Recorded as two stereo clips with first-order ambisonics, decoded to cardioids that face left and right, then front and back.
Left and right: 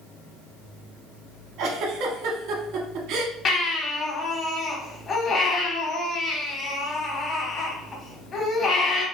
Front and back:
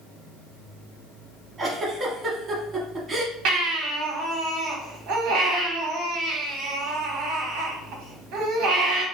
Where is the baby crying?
150° left, 1.3 m.